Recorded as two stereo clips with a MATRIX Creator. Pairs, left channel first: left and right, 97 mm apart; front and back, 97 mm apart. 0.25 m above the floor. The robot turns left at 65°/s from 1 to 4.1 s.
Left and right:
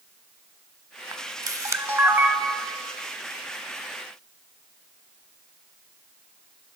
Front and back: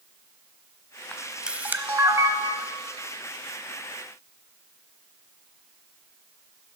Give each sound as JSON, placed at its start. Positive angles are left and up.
{"t": 1.1, "sound": "a camera shutter", "azimuth_deg": -80, "distance_m": 0.8}